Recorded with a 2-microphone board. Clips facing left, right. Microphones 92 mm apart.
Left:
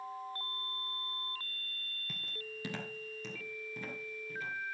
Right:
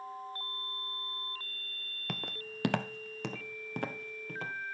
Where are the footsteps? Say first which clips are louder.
Right 6 dB; 70° right (ahead or behind), 0.6 m.